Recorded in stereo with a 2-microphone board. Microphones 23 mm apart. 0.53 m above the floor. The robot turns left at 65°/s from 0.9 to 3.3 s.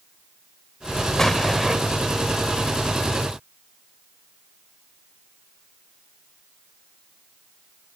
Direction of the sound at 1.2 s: 20° left.